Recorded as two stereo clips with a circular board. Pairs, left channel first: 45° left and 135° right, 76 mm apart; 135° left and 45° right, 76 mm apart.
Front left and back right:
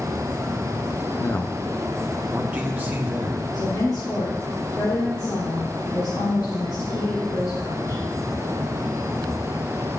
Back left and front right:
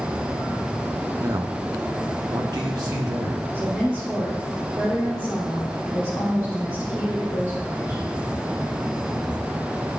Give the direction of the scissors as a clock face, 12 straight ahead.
No scissors in this recording.